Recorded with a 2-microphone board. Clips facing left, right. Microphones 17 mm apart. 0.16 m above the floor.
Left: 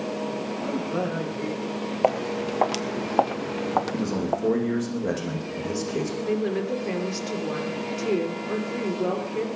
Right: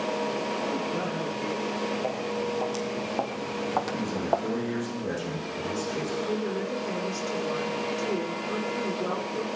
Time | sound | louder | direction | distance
0.6 | a man speaking | left 2 dB | 70° left (ahead or behind) | 8 m
2.0 | footsteps | left 5 dB | 75° left (ahead or behind) | 1.5 m
3.9 | a man speaking | left 1 dB | 65° left (ahead or behind) | 9 m
6.3 | a woman speaking | left 4 dB | 35° left (ahead or behind) | 3.5 m